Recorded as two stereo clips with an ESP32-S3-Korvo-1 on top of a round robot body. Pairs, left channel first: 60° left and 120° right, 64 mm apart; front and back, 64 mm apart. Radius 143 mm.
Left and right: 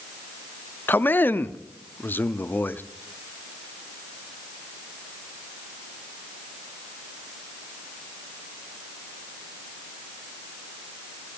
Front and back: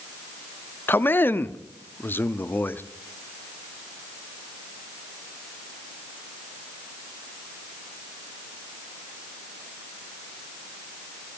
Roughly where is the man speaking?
Ahead left.